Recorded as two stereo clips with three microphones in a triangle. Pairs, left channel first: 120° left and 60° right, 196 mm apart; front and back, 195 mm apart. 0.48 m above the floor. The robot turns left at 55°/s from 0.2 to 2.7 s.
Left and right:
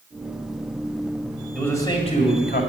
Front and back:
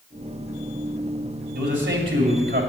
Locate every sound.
1.6 s a man speaking: 155° right, 2 m; by 2.6 s 145° left, 2 m